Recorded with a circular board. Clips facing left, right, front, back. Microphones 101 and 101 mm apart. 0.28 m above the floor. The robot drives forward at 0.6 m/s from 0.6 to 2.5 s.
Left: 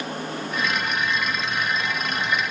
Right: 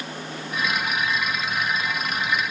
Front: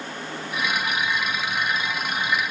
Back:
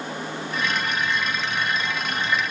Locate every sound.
Only background noise.